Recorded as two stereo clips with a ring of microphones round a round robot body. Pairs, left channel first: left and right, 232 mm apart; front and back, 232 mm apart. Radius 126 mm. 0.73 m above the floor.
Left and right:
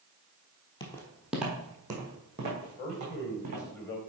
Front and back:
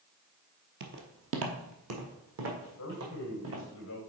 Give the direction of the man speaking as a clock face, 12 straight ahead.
10 o'clock.